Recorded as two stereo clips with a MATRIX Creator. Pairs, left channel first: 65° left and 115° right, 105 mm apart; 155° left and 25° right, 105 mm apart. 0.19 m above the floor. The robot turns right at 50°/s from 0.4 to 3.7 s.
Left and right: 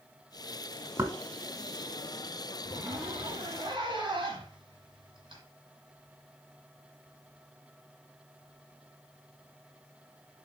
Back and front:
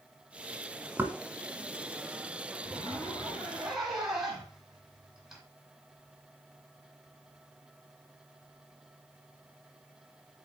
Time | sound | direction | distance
1.0 | knocking | 70° right | 1.0 m
2.6 | a zipper | 160° right | 2.0 m